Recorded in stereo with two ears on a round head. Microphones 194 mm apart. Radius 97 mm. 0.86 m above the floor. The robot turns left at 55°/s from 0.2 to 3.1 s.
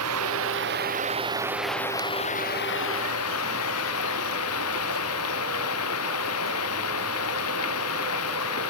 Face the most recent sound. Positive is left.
turn(degrees=100)